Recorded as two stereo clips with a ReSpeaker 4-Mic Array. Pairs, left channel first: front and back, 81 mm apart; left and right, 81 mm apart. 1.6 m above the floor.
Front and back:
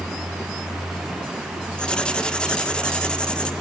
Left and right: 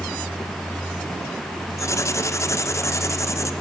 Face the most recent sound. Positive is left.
turn(degrees=75)